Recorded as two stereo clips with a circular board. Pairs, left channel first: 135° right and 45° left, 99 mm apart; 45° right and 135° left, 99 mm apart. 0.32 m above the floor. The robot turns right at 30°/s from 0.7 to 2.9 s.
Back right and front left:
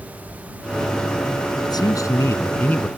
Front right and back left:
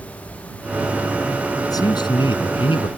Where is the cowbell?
No cowbell in this recording.